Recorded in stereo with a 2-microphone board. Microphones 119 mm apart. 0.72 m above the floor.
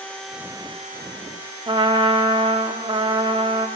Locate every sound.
1.7 s a trumpet: 45° right (ahead or behind), 0.8 m